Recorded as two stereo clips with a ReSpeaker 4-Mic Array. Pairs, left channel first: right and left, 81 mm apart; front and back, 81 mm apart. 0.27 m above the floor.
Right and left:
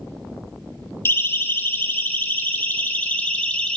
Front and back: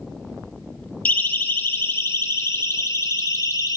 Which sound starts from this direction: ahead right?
A siren, at 1.1 s.